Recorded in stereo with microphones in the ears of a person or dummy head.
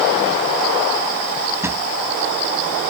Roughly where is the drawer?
Centre.